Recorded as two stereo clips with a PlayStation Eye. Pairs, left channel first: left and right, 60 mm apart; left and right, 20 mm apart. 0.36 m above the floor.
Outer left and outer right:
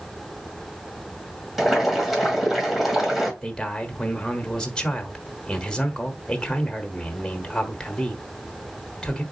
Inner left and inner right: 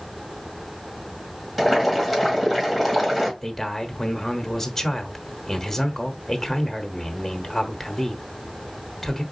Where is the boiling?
Centre (ahead or behind), 1.8 m.